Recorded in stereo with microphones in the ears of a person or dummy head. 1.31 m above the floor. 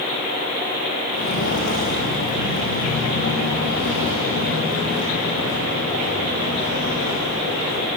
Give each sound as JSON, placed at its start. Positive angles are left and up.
{"t": 1.1, "sound": "footsteps", "side_deg": 65, "distance_m": 5.0}